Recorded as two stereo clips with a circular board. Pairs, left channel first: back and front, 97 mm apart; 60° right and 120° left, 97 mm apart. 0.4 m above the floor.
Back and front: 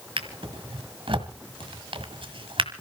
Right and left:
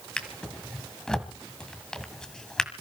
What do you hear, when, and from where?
0.2 s a drawer: 25° left, 1.6 m